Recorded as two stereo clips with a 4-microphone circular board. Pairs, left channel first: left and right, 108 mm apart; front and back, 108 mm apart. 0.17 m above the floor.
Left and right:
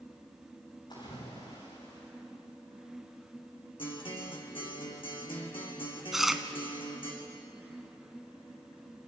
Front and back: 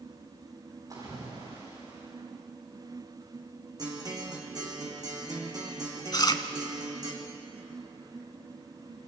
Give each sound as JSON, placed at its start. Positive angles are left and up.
{"t": 0.9, "sound": "a splash", "azimuth_deg": 130, "distance_m": 8.5}
{"t": 3.8, "sound": "a guitar", "azimuth_deg": 130, "distance_m": 3.5}
{"t": 6.1, "sound": "chewing", "azimuth_deg": -5, "distance_m": 1.0}